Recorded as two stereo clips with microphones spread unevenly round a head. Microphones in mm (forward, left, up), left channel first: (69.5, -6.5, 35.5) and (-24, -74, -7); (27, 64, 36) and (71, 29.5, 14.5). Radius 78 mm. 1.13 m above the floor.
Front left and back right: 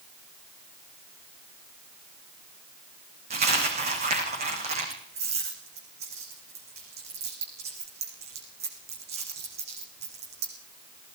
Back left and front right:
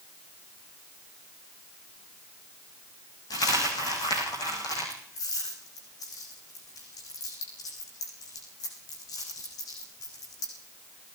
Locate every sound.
3.3 s a dropped coin: 165° left, 6 m